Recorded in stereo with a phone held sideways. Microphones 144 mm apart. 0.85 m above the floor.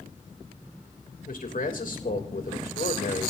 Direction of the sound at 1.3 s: 70° left (ahead or behind).